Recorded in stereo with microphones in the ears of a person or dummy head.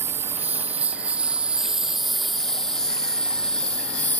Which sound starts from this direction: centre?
A lawn mower, at 0.0 s.